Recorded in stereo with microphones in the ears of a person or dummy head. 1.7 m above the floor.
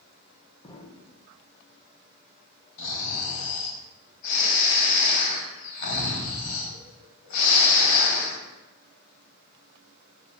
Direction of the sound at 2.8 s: 65° left (ahead or behind).